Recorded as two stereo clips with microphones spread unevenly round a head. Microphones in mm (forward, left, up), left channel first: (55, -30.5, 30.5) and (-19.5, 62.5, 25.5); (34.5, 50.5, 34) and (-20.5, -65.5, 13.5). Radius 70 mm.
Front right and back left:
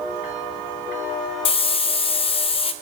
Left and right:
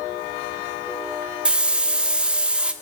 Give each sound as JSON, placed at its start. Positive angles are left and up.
{"t": 1.4, "sound": "a hiss", "azimuth_deg": -25, "distance_m": 0.7}